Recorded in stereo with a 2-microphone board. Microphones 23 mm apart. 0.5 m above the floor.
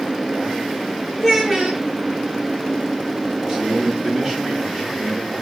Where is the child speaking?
Centre (ahead or behind), 4.5 m.